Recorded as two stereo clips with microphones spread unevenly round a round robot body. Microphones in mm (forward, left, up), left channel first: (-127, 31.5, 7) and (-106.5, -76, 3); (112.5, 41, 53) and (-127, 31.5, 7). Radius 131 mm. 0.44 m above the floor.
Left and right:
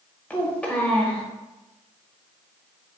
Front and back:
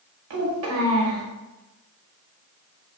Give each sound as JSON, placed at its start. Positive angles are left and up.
{"t": 0.3, "sound": "a child speaking", "azimuth_deg": 180, "distance_m": 1.0}